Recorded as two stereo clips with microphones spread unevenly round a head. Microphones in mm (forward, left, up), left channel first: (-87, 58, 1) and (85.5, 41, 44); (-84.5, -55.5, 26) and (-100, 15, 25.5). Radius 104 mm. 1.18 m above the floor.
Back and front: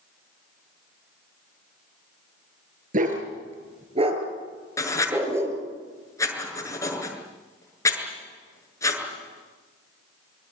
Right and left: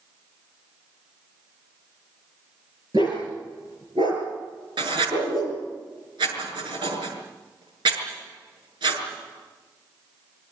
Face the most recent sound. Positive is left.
turn(degrees=100)